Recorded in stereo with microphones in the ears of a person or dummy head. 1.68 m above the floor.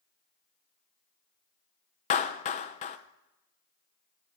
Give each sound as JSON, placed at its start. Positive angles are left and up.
{"t": 2.1, "sound": "a clap", "side_deg": 35, "distance_m": 0.8}